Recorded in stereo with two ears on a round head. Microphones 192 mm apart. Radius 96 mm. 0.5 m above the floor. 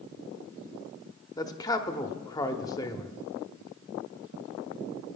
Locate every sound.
1.4 s a man speaking: 20° left (ahead or behind), 0.8 m